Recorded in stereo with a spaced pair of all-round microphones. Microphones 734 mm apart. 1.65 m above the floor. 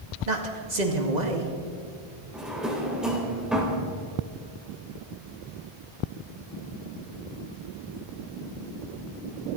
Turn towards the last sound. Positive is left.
turn(degrees=0)  # may be behind; listen again after turning